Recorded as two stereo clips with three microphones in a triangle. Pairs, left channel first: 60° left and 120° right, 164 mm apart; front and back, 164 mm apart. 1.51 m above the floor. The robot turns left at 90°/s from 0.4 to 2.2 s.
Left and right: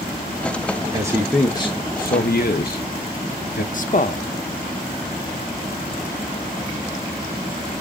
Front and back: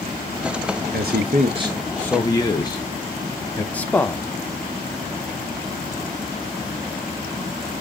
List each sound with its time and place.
0.9 s a man speaking: straight behind, 0.6 m; by 3.6 s 65° left, 0.6 m
3.7 s a man speaking: 80° left, 0.6 m